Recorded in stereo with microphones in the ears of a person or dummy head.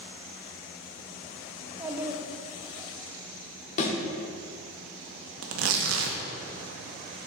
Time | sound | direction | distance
1.6 | a child speaking | 15° right (ahead or behind) | 0.8 m
3.8 | a thud | 50° left (ahead or behind) | 1.5 m
5.4 | tearing paper | 85° right | 0.8 m